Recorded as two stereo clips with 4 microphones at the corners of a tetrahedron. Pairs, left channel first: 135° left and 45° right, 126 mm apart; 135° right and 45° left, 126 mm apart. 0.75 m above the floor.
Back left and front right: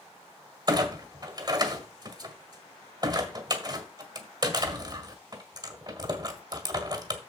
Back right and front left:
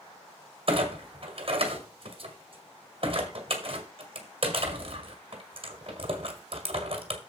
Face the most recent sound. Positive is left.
turn(degrees=5)